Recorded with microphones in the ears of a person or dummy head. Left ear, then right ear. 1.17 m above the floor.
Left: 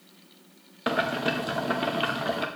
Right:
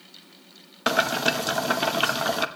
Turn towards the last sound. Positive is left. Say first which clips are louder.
# right 4 dB
turn(degrees=-20)  # may be behind; listen again after turning